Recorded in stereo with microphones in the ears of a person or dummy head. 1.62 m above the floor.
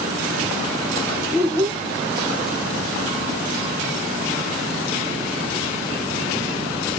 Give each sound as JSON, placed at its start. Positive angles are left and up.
{"t": 1.3, "sound": "a child speaking", "side_deg": -15, "distance_m": 1.1}